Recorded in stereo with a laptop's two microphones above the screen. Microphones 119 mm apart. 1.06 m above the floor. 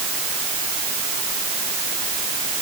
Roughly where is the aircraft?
I don't hear an aircraft.